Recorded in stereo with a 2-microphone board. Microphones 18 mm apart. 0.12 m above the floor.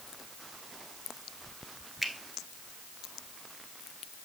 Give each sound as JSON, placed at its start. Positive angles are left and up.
{"t": 2.0, "sound": "a finger snap", "side_deg": -5, "distance_m": 1.1}